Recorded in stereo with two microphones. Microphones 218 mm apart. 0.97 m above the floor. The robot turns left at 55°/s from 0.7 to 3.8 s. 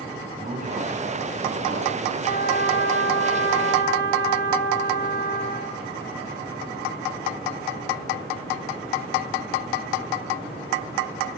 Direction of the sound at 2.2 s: 145° left.